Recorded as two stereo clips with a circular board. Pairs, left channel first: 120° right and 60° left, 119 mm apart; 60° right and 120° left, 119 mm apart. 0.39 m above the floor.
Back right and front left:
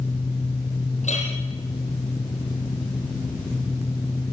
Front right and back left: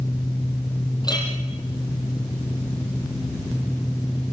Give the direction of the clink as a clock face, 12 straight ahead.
4 o'clock.